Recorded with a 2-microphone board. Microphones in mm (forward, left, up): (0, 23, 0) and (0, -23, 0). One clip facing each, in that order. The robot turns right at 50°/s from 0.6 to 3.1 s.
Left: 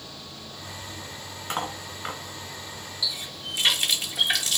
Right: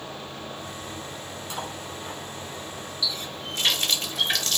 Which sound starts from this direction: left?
Cutlery clinking, at 1.5 s.